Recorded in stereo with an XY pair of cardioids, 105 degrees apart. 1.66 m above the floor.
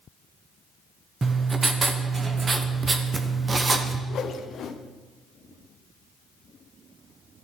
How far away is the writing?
About 1.0 m.